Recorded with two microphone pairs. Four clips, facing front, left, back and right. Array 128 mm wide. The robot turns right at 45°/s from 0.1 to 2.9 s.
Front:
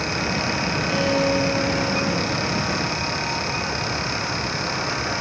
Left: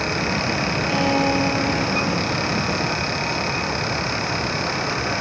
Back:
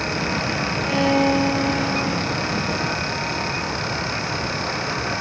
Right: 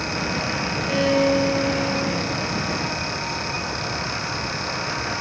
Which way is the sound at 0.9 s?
145° left.